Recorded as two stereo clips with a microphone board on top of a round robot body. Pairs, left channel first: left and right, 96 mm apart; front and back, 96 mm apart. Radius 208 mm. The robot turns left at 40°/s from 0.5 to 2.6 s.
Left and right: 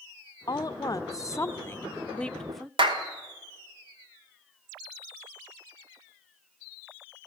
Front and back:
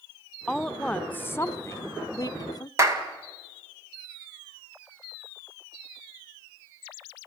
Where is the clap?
120° right, 2 m.